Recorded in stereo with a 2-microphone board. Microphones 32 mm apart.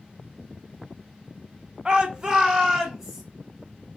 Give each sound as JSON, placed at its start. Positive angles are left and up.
{"t": 1.9, "sound": "a shout", "side_deg": -25, "distance_m": 0.6}